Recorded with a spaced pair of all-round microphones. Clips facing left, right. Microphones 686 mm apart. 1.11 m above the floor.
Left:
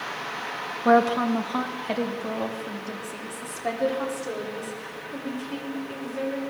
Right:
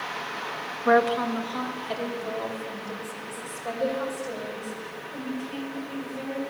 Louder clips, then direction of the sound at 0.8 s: Left 2 dB; 60° left (ahead or behind).